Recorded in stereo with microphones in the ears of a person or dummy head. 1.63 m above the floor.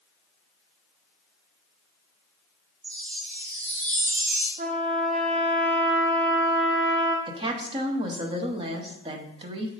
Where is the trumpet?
35° right (ahead or behind), 0.8 m.